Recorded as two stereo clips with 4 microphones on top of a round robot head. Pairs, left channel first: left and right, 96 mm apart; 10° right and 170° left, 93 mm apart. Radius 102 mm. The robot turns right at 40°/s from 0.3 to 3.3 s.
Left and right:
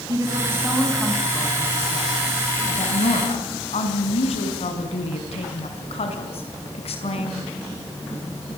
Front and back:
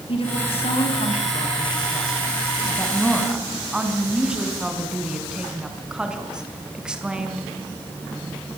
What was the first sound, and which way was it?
A woman speaking, 30° right.